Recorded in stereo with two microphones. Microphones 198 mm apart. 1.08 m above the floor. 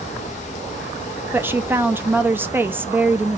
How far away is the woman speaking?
About 0.6 m.